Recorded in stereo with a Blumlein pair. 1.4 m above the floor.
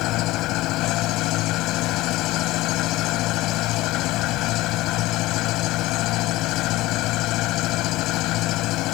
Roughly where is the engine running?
Ahead left.